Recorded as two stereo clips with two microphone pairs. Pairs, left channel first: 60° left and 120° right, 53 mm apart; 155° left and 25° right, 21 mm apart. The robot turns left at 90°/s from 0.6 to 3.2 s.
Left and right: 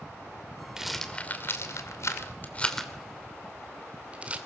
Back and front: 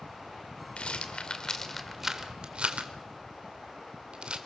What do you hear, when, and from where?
0.8 s a rattle: 160° left, 2.5 m; by 4.4 s 60° right, 2.5 m